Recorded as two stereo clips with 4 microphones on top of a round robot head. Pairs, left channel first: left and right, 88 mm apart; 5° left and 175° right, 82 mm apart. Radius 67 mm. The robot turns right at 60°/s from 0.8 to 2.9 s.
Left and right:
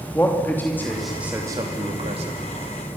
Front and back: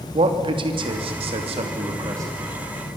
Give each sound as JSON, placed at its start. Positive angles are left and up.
{"t": 0.1, "sound": "a man speaking", "azimuth_deg": 165, "distance_m": 3.0}